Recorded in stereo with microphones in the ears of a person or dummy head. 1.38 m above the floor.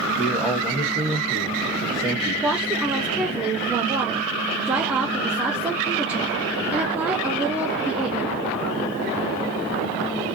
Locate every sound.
0.1 s a man speaking: 5° right (ahead or behind), 1.0 m
2.4 s a woman speaking: 5° right (ahead or behind), 0.6 m